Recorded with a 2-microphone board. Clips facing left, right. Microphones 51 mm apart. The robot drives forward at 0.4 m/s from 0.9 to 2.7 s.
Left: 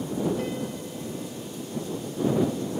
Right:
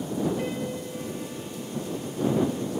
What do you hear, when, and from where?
0.4 s a piano: 20° right (ahead or behind), 3.5 m